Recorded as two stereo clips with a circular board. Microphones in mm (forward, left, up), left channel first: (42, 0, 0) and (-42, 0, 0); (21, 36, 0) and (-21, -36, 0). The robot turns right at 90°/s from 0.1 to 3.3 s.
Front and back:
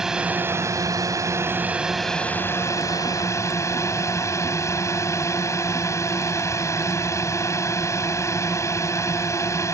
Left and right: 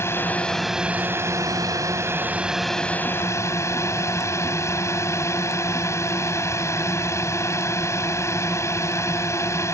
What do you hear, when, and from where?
0.0 s a drone: 100° left; by 9.8 s 30° left